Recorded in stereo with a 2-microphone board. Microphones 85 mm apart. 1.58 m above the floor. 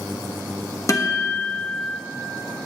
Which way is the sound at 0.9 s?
40° left (ahead or behind).